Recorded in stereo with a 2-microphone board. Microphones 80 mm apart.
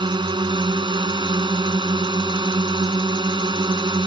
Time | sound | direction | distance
0.0 | a drone | 75° right (ahead or behind) | ?